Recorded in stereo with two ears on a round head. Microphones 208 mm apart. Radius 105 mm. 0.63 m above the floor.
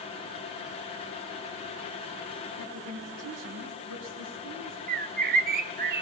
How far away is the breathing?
No breathing in this recording.